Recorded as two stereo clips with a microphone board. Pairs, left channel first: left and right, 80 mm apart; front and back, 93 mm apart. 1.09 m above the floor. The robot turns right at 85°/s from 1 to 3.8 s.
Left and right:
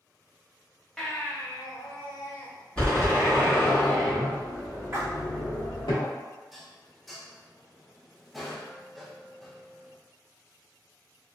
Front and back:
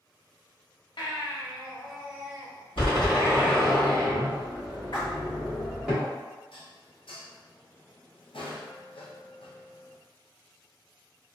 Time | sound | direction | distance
1.0 | a baby crying | 5° left | 0.8 m
2.8 | a door slam | 10° left | 1.3 m
4.9 | a splash | 35° right | 1.0 m
6.5 | dishes clattering | straight ahead | 0.5 m